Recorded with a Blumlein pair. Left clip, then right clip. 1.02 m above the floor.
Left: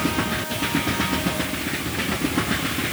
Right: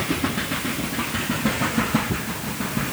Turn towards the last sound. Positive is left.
No sound to turn to.